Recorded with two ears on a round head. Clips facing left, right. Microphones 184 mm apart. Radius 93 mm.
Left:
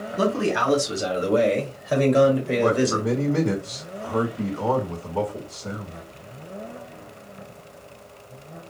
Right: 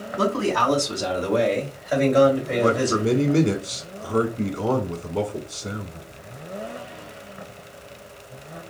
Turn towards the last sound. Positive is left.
turn(degrees=-20)  # may be behind; listen again after turning